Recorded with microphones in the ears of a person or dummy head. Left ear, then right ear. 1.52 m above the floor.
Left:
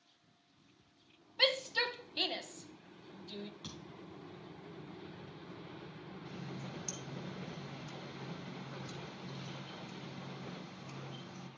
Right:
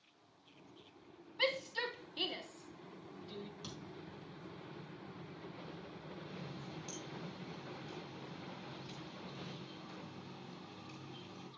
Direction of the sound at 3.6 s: 15° left (ahead or behind).